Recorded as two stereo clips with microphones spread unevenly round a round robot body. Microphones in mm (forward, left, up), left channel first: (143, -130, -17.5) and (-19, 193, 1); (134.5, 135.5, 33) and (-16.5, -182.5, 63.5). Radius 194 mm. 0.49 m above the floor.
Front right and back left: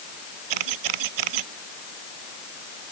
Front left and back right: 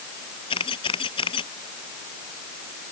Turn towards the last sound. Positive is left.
turn(degrees=140)